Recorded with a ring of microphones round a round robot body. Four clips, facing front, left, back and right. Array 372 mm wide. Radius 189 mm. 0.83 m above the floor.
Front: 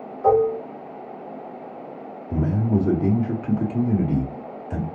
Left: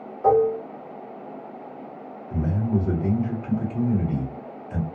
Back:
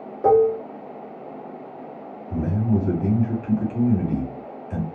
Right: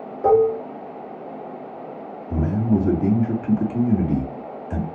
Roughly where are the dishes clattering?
Behind right.